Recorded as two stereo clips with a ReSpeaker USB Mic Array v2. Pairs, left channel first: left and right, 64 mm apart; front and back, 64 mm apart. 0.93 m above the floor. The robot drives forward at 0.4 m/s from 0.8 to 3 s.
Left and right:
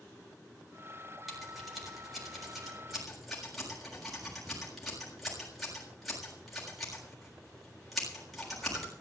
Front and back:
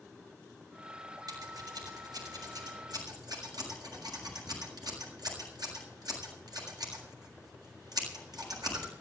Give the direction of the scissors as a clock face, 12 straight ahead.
6 o'clock.